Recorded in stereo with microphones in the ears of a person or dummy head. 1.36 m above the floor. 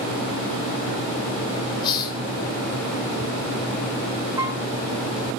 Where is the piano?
20° right (ahead or behind), 1.0 m.